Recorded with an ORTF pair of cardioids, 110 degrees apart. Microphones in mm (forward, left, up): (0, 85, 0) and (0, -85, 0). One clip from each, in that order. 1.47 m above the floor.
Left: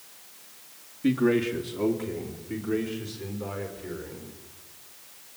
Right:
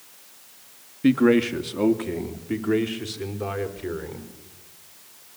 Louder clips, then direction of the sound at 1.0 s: Right 5 dB; 35° right.